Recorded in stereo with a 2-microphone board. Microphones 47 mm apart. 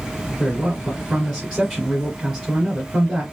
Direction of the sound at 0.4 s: 5° left (ahead or behind).